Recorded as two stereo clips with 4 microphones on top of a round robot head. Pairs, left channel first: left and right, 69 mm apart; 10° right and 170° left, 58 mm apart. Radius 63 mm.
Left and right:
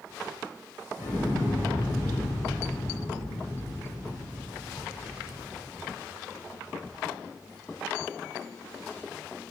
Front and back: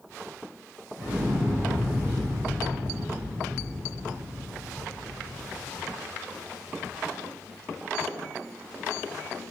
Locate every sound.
1.0 s an explosion: 105° left, 1.3 m